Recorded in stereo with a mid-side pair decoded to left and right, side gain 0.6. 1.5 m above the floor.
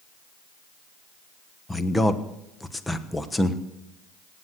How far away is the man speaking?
About 1.2 m.